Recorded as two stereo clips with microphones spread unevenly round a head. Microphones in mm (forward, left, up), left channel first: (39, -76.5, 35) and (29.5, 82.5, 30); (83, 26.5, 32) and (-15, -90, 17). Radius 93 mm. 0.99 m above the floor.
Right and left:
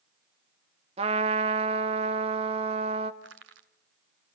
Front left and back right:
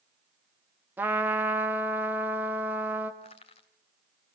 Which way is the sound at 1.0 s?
150° left.